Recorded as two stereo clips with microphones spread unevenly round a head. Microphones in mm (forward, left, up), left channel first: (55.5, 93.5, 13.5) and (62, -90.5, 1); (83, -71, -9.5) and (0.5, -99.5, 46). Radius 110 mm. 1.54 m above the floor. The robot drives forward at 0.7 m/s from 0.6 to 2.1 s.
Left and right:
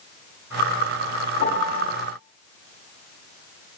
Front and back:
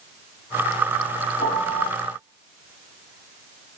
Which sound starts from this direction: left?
A piano, at 1.4 s.